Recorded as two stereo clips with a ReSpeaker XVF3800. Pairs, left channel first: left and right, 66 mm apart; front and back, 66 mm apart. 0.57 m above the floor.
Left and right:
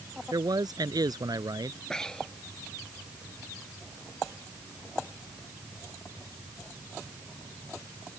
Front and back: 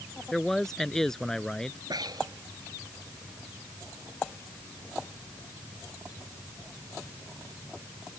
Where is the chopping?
I don't hear chopping.